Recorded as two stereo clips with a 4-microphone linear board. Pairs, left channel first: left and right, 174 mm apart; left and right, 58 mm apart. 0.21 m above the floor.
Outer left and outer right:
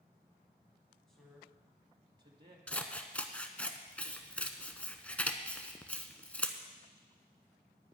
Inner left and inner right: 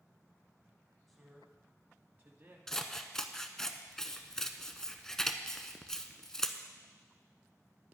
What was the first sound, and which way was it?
A man speaking, 5° left (ahead or behind).